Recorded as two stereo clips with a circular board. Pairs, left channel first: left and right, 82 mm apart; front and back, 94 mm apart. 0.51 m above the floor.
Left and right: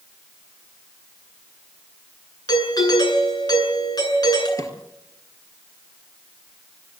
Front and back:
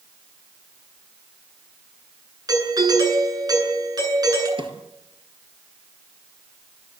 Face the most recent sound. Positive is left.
turn(degrees=145)